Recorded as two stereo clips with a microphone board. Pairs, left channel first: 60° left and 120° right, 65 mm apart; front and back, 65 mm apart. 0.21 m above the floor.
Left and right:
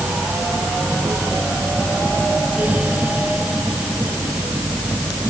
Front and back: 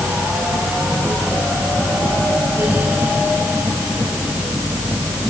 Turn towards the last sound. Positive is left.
No sound to turn to.